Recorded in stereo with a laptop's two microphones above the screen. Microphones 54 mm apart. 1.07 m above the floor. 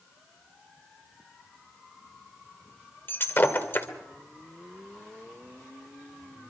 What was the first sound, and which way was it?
Breaking glass, 40° left (ahead or behind).